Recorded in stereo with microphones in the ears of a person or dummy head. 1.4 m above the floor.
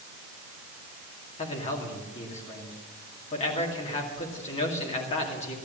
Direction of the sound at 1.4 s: 30° left (ahead or behind).